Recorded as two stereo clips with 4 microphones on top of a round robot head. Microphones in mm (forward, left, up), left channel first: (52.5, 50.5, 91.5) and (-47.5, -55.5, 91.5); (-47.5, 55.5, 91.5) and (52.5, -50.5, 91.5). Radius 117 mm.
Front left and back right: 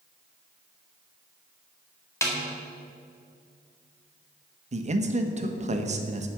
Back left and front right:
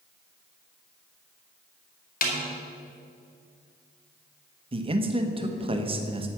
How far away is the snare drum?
About 2 m.